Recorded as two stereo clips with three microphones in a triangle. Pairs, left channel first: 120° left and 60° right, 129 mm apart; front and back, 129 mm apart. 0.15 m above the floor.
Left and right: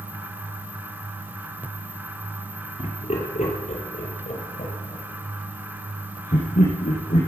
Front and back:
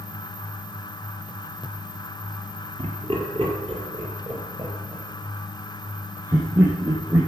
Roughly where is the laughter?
Behind left.